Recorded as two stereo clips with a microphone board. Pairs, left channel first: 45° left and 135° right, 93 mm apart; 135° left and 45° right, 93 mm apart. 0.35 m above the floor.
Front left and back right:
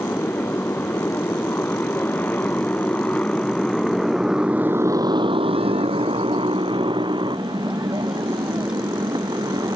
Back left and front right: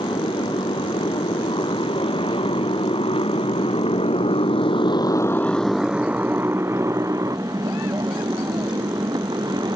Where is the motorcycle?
110° left; by 9.8 s 90° right.